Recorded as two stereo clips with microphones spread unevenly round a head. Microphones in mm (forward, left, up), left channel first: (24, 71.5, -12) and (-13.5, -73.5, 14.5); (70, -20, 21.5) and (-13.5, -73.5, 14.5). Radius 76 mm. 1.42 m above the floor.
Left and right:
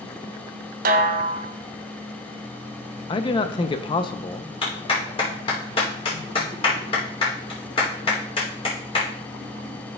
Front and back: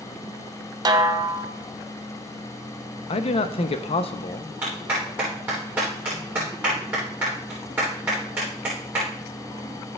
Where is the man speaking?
15° left, 0.8 m.